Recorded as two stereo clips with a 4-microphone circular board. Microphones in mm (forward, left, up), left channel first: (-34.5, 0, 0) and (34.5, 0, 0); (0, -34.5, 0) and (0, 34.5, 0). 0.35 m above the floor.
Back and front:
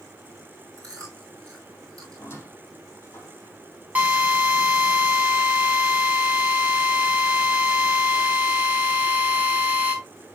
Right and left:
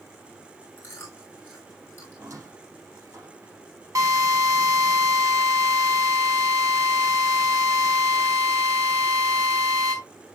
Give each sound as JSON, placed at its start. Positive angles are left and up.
{"t": 0.8, "sound": "chewing", "azimuth_deg": -35, "distance_m": 5.0}
{"t": 2.1, "sound": "a squeak", "azimuth_deg": 125, "distance_m": 4.0}
{"t": 4.0, "sound": "a drill", "azimuth_deg": 65, "distance_m": 2.5}